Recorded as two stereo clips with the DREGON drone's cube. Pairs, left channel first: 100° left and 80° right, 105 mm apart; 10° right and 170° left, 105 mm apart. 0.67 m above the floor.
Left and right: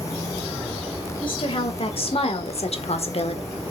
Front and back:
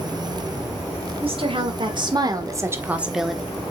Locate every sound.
1.2 s a woman speaking: 140° left, 2.5 m; by 3.5 s 70° left, 1.4 m